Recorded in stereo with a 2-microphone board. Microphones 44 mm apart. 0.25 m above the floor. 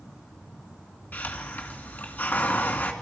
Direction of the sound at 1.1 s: 40° left (ahead or behind).